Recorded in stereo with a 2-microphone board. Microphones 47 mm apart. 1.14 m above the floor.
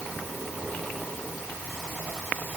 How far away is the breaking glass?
I don't hear breaking glass.